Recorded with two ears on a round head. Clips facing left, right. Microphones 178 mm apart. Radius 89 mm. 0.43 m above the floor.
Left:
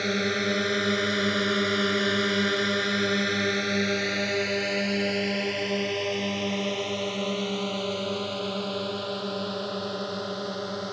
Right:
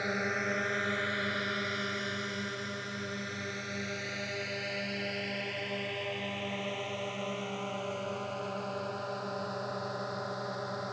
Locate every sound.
0.0 s a drone: 40° left (ahead or behind)